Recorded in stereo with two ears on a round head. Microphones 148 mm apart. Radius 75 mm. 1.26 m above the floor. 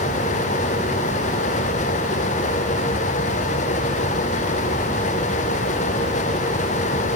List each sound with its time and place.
Only background noise.